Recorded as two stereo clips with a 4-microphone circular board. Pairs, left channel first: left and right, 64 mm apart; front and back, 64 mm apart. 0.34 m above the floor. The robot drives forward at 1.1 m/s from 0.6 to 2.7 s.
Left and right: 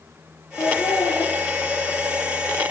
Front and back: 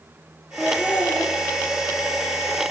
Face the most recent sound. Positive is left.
turn(degrees=110)